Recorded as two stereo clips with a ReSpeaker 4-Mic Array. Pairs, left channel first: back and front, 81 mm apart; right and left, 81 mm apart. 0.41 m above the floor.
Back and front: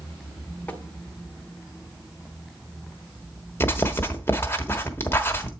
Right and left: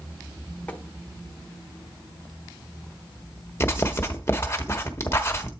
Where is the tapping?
140° right, 1.4 m.